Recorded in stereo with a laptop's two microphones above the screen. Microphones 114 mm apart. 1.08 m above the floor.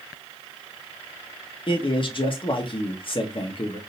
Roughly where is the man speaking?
Left.